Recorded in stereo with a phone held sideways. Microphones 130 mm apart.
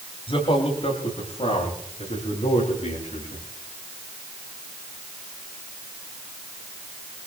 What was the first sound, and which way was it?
A man speaking, 45° left (ahead or behind).